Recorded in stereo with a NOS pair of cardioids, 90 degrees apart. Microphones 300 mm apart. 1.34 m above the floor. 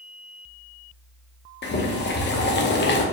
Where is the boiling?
40° left, 0.9 m.